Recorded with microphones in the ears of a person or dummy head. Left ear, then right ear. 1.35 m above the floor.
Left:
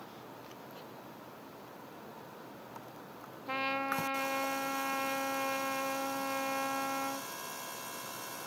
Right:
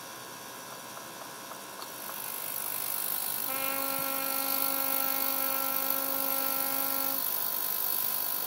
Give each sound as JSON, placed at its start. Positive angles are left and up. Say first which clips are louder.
{"t": 3.5, "sound": "a trumpet", "louder": "left 2 dB", "side_deg": 10, "distance_m": 0.9}